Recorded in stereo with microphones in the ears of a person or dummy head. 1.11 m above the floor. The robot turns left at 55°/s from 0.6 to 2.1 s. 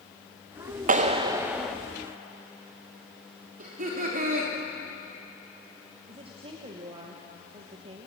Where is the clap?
140° right, 0.9 m; by 1.8 s 175° left, 0.9 m.